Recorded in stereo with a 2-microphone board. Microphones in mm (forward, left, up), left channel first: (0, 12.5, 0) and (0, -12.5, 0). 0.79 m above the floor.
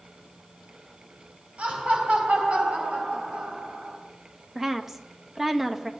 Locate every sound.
1.6 s laughter: 65° right (ahead or behind), 4.5 m; by 4.0 s 60° right (ahead or behind), 3 m
4.5 s a woman speaking: 15° right (ahead or behind), 0.6 m